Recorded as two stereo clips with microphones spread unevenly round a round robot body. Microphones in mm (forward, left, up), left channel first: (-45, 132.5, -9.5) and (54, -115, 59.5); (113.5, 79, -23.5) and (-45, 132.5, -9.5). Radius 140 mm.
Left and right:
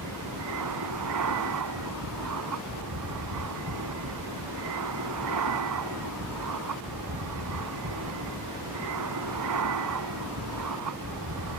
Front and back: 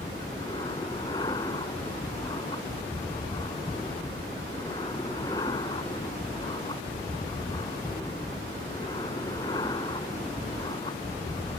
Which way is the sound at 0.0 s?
95° right.